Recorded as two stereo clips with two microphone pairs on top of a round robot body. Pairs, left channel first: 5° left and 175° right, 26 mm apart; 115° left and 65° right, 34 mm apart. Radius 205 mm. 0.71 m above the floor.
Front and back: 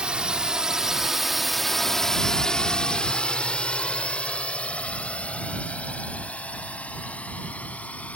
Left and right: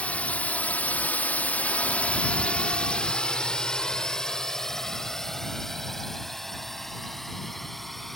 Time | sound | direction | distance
0.0 | a drone | 145° left | ?